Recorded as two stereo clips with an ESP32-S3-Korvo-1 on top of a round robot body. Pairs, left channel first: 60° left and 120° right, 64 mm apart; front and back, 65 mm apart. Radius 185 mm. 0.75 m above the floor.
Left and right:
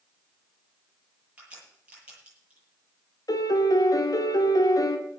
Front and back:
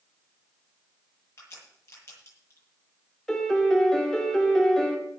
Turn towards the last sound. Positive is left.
turn(degrees=85)